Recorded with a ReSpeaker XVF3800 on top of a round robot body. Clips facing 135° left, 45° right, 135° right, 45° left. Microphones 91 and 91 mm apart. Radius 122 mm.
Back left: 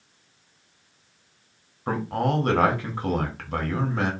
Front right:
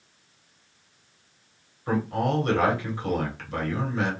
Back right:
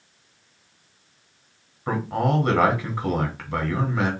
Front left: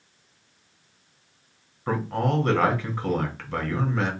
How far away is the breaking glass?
I don't hear breaking glass.